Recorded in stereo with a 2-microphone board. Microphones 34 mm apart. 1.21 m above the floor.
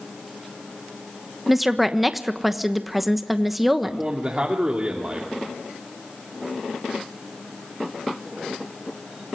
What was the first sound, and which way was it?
A woman speaking, centre (ahead or behind).